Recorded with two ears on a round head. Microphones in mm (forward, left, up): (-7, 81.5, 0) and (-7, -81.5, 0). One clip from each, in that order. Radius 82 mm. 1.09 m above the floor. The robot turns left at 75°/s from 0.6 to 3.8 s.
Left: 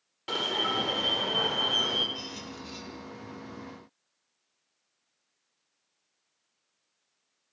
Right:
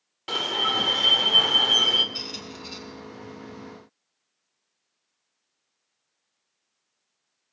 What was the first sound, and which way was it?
An alarm, 15° right.